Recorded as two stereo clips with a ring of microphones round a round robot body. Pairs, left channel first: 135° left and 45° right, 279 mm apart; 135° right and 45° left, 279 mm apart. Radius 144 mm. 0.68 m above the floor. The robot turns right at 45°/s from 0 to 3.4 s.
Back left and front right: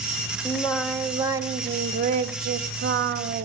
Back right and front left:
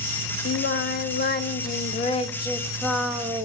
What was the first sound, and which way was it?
Singing, 155° right.